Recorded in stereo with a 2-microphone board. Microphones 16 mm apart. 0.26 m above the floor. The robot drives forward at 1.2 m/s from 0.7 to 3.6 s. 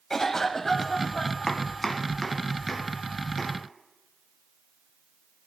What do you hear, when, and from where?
0.1 s a cough: 35° left (ahead or behind), 1.2 m; by 1.5 s 25° left (ahead or behind), 1.7 m
1.5 s chopping: 30° left (ahead or behind), 0.9 m; by 3.5 s 10° left (ahead or behind), 3 m